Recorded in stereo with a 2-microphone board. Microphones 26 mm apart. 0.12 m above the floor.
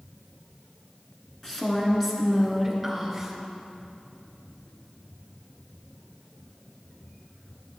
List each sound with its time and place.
1.4 s a woman speaking: 15° left (ahead or behind), 1.7 m; by 3.4 s 15° right (ahead or behind), 2 m